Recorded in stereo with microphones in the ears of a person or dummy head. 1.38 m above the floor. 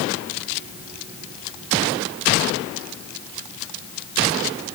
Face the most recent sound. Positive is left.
No sound to turn to.